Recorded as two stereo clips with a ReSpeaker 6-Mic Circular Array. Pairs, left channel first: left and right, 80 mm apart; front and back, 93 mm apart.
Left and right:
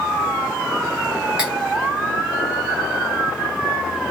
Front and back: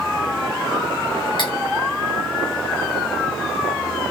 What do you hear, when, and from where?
1.4 s cutlery clinking: 15° right, 1.1 m